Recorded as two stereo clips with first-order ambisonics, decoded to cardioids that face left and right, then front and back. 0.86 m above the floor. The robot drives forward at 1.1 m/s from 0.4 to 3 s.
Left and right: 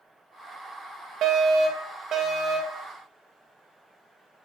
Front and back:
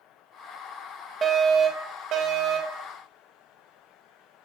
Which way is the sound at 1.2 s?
115° right.